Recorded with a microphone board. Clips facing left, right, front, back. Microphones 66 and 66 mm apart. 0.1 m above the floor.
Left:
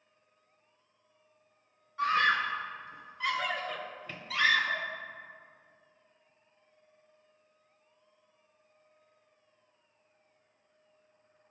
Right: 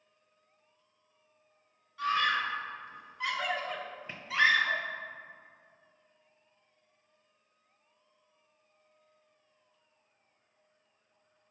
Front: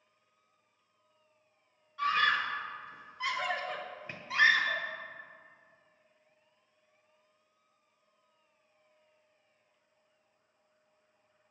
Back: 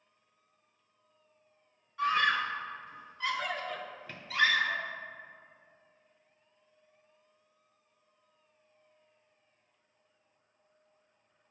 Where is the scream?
105° left, 1.2 m; by 4.8 s 50° right, 1.5 m.